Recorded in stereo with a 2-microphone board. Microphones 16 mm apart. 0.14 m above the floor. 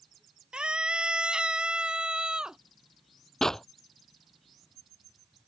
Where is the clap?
35° left (ahead or behind).